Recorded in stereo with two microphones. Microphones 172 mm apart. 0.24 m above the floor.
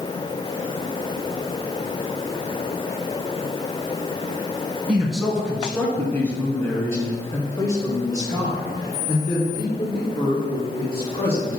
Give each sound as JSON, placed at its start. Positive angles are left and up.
{"t": 4.9, "sound": "a man speaking", "side_deg": -5, "distance_m": 2.0}